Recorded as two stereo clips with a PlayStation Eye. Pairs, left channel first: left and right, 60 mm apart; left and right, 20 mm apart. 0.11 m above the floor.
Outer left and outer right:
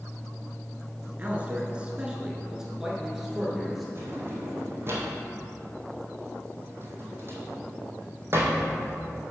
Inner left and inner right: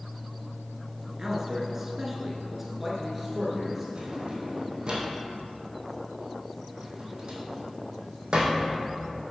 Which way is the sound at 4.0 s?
40° right (ahead or behind).